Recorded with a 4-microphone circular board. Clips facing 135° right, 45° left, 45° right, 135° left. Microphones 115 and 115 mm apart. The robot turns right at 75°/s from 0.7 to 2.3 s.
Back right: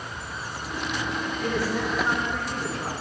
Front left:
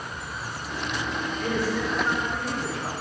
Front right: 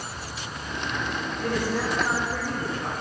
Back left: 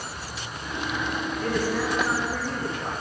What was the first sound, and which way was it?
A woman speaking, 110° right.